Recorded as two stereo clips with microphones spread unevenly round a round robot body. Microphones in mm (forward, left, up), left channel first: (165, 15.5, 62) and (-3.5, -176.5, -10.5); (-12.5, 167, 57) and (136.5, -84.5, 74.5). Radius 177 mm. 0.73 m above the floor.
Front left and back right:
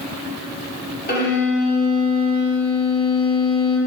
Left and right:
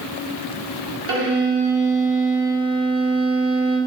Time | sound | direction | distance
1.1 | a violin | 10° right | 1.7 m